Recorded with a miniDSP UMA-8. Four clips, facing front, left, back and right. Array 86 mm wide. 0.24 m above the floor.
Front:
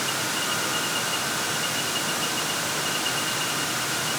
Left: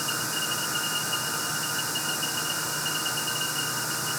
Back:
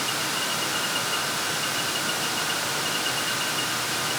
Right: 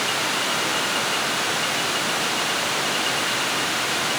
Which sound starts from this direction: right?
Running water, at 0.0 s.